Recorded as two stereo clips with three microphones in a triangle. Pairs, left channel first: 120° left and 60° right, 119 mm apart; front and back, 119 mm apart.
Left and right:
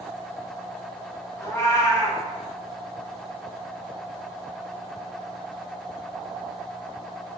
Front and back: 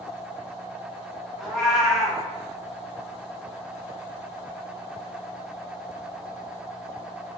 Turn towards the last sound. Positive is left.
turn(degrees=90)